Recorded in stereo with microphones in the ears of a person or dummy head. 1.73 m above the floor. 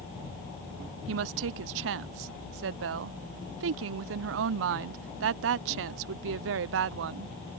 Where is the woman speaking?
65° right (ahead or behind).